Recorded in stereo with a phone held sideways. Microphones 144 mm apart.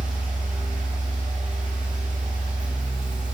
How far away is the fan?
About 1.7 m.